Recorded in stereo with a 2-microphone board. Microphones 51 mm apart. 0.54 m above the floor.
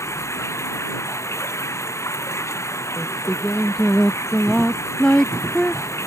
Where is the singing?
15° left (ahead or behind).